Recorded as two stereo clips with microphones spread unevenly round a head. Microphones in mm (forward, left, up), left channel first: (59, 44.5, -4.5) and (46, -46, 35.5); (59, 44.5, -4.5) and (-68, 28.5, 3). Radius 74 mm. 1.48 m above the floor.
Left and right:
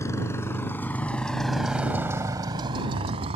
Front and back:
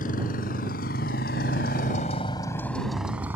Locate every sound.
0.0 s a motorcycle: 20° left; by 3.4 s 95° right